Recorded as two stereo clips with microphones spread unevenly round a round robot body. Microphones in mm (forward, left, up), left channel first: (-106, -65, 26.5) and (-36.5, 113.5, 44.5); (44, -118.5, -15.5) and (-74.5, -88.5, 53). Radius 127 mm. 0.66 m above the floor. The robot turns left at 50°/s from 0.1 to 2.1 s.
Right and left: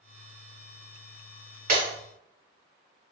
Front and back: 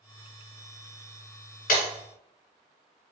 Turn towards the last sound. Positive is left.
turn(degrees=-5)